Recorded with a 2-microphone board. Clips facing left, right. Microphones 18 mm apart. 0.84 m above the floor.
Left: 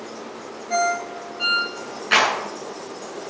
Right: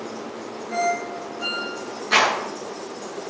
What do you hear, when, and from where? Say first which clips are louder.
0.7 s a ringtone: left 2 dB; 85° left, 5 m
2.1 s a clap: left 1 dB; 60° left (ahead or behind), 8.5 m